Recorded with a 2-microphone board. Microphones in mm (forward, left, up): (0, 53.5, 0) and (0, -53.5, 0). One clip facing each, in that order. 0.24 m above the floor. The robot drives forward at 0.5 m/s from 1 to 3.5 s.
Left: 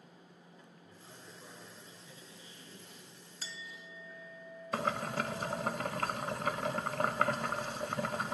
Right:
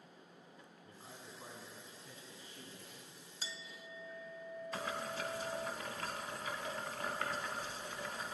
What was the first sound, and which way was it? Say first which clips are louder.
A man speaking: right 2 dB; 55° right (ahead or behind).